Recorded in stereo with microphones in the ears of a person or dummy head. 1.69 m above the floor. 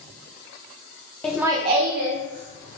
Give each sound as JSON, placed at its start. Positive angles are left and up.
{"t": 1.2, "sound": "laughter", "side_deg": 5, "distance_m": 0.5}